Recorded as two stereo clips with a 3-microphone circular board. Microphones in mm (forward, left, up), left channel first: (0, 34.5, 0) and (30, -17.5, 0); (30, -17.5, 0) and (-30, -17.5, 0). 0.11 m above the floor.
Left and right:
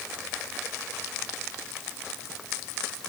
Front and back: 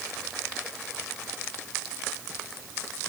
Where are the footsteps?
No footsteps in this recording.